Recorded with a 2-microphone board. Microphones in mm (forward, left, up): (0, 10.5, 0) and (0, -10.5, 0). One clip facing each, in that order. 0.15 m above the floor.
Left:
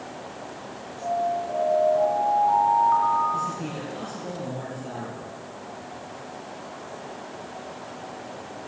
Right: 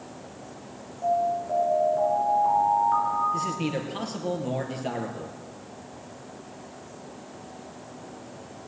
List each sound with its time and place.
1.0 s an alarm: 5° left (ahead or behind), 3 m
3.3 s a man speaking: 45° right (ahead or behind), 3 m